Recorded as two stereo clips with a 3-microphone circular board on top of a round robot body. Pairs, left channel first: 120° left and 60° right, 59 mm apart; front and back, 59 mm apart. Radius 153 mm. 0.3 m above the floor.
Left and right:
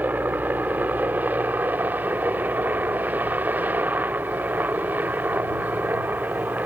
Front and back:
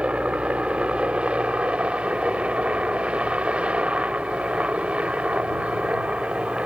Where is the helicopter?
115° right.